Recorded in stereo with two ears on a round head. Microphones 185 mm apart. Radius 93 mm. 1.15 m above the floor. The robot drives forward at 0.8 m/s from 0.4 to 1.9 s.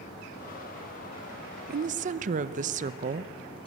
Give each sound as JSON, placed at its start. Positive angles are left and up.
{"t": 1.7, "sound": "a woman speaking", "side_deg": -50, "distance_m": 0.5}